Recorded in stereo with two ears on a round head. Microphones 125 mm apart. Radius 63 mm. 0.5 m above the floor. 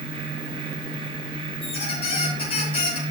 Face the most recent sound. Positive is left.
turn(degrees=35)  # may be behind; listen again after turning